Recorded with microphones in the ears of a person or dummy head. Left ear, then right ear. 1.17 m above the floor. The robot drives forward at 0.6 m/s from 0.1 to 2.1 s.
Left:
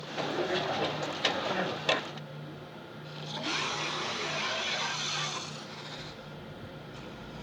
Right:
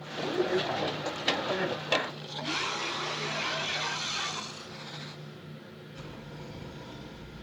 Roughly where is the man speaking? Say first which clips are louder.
Right 2 dB; centre.